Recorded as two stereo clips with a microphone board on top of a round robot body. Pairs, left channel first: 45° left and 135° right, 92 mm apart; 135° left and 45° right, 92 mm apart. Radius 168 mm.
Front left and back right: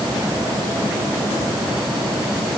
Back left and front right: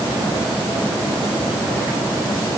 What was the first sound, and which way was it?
Only background noise.